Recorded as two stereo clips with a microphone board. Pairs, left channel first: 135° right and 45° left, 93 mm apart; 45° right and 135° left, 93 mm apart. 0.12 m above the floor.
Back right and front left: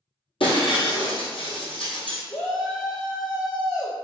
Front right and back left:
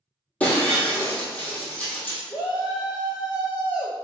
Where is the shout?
100° right, 1.8 m.